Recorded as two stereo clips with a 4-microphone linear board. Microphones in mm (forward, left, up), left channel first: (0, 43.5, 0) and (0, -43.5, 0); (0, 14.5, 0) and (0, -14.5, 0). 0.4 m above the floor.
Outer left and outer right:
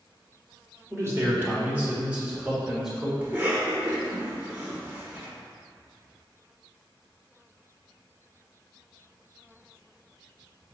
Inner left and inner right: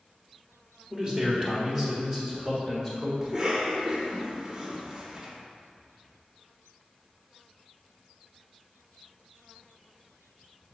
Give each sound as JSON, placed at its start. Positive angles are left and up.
{"t": 0.9, "sound": "a man speaking", "side_deg": -30, "distance_m": 1.6}
{"t": 3.2, "sound": "a cough", "side_deg": -20, "distance_m": 0.8}